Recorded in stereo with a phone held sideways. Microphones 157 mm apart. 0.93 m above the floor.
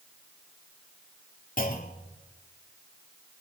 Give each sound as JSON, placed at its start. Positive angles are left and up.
{"t": 1.6, "sound": "a clunk", "side_deg": 60, "distance_m": 2.5}